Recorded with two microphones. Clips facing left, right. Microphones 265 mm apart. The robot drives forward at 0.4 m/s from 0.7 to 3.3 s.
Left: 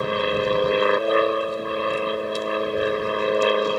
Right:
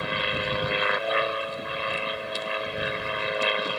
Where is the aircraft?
50° left (ahead or behind); by 3.8 s 55° left (ahead or behind).